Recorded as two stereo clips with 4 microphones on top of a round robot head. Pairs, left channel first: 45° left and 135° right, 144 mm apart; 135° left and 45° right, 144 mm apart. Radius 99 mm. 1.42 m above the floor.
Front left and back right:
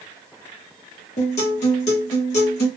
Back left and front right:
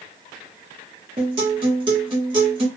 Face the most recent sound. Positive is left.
turn(degrees=5)